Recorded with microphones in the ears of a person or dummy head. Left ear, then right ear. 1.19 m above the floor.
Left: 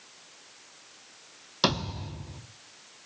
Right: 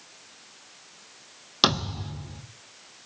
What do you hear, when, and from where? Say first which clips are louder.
1.6 s a thud: right 4 dB; 25° right (ahead or behind), 2 m